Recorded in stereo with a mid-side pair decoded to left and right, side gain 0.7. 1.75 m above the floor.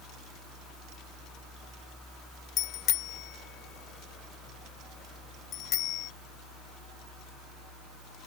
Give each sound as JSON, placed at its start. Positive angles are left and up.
{"t": 2.6, "sound": "a bicycle bell", "azimuth_deg": 50}